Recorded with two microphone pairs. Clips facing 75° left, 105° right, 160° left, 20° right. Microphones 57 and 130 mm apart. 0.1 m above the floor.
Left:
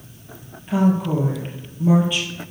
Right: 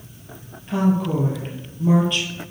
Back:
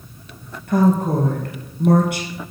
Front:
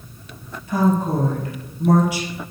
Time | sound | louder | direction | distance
0.7 | a woman speaking | left 1 dB, back 2 dB | 155° left | 2 m